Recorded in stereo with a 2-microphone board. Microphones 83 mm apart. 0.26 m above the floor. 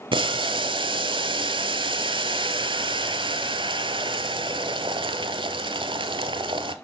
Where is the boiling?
85° right, 0.7 m.